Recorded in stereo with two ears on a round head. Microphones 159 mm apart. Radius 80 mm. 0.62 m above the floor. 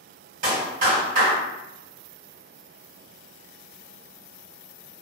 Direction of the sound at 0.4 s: 50° right (ahead or behind).